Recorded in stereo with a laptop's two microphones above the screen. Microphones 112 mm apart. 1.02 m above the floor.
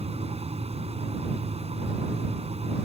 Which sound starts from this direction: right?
A fan, at 0.0 s.